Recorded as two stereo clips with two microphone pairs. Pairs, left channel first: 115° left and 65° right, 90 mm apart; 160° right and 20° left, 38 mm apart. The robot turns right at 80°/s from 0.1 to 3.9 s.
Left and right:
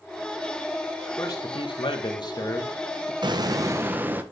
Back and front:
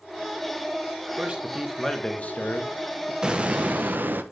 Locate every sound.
1.2 s a man speaking: 60° left, 1.5 m; by 3.1 s 140° right, 1.5 m
3.2 s an explosion: 55° right, 0.8 m; by 4.2 s straight ahead, 0.8 m